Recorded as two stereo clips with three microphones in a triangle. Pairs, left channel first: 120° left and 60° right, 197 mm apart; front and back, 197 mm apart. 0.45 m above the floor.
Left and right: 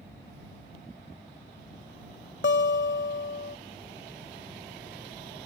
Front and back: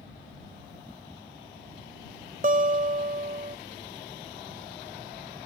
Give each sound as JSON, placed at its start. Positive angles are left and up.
{"t": 2.4, "sound": "a guitar", "azimuth_deg": 135}